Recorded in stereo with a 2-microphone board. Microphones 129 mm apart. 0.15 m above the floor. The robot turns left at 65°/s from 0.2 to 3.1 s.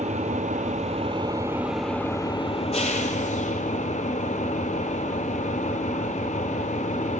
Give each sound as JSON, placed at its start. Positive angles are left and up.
{"t": 0.0, "sound": "an engine running", "azimuth_deg": -75, "distance_m": 0.9}